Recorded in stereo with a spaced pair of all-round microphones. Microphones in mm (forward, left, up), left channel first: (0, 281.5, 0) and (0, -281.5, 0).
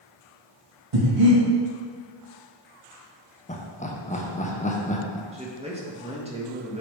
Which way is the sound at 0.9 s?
60° right (ahead or behind).